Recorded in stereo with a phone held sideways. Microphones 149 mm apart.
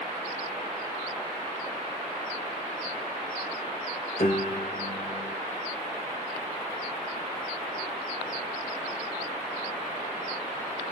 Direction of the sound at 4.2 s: 70° left (ahead or behind).